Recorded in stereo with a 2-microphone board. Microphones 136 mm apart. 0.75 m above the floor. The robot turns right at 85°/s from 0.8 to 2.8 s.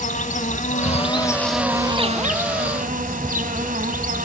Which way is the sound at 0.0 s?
120° left.